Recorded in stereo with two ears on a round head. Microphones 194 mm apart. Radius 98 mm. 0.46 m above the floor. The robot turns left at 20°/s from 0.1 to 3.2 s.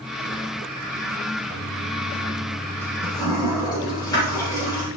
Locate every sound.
1.5 s a toilet flushing: 15° right (ahead or behind), 6 m; by 4.9 s 20° left (ahead or behind), 6 m